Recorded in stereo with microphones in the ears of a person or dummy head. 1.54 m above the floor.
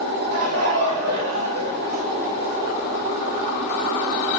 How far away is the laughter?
About 0.9 m.